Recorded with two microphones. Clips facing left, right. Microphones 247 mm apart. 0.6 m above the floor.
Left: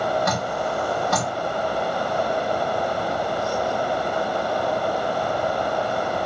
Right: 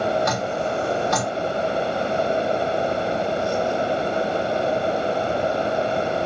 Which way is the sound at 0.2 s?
60° left (ahead or behind).